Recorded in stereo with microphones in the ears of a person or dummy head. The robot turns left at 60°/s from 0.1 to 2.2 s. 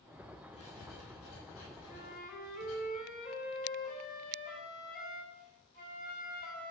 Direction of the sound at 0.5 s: 150° left.